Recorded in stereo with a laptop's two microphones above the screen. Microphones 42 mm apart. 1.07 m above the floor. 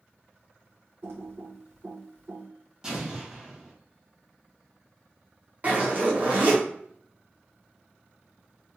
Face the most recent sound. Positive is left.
turn(degrees=-40)  # may be behind; listen again after turning